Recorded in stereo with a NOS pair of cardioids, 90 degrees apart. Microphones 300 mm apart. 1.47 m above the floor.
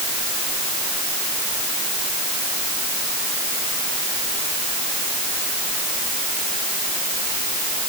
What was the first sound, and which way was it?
Only background noise.